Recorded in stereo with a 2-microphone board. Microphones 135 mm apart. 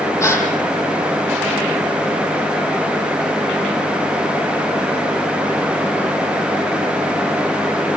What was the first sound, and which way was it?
A gasp, 20° left (ahead or behind).